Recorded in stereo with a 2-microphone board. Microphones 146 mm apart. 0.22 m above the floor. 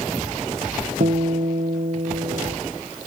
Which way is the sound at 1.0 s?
75° right (ahead or behind).